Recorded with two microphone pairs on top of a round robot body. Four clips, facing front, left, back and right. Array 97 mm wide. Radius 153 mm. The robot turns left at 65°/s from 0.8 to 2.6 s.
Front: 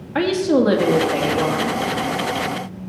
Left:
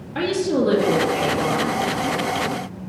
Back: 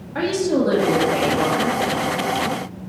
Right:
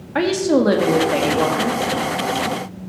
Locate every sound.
0.1 s a woman speaking: 65° right, 2 m; by 1.8 s 130° right, 2 m